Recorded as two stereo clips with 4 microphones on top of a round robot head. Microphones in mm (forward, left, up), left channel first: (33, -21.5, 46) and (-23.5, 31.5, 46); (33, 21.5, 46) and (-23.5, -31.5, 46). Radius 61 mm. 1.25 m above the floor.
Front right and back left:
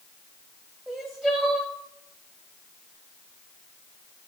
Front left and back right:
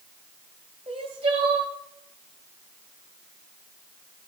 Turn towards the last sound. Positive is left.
turn(degrees=-140)